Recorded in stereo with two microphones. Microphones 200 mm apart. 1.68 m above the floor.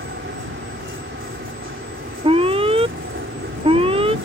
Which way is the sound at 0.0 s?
75° right (ahead or behind).